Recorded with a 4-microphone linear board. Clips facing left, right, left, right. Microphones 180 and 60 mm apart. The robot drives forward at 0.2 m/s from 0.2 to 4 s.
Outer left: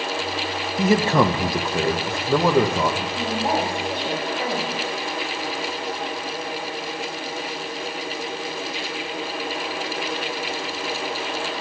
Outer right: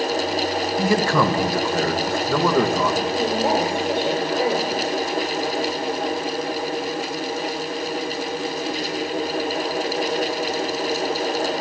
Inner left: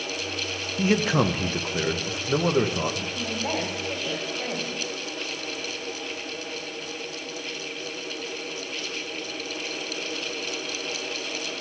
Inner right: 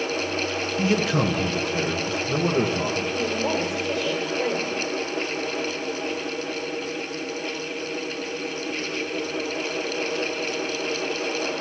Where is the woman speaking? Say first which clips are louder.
Outer right 4 dB, inner right 5 dB; 55° right (ahead or behind), 5.5 m; by 4.8 s 50° right (ahead or behind), 5.5 m.